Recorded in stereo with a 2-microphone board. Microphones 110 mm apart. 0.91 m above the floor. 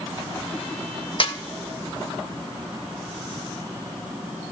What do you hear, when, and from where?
1.2 s a snare drum: 55° left (ahead or behind), 1.0 m